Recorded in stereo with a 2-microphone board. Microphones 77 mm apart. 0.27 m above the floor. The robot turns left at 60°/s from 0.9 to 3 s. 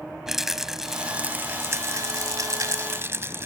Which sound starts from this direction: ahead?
A rattle, at 0.3 s.